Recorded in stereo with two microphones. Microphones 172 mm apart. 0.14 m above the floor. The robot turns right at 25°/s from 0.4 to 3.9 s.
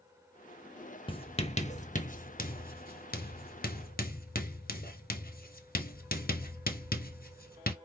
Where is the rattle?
I don't hear a rattle.